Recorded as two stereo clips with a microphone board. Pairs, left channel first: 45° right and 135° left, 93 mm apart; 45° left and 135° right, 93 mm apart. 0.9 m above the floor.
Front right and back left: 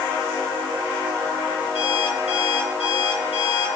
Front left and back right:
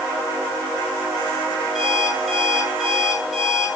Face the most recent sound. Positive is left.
turn(degrees=-50)